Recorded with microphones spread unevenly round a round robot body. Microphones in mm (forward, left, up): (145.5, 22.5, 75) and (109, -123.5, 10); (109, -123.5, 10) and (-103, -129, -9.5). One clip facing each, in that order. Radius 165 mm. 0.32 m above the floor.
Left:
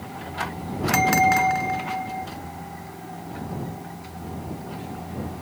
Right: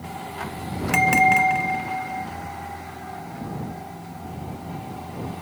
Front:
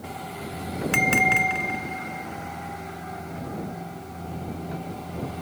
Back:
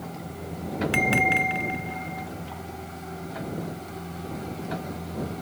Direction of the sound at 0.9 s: 30° right.